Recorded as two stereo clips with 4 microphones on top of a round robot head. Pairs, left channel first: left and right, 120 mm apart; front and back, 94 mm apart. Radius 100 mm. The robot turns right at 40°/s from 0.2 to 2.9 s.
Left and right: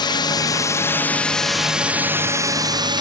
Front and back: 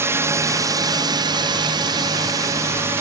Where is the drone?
125° left; by 3.0 s 125° right.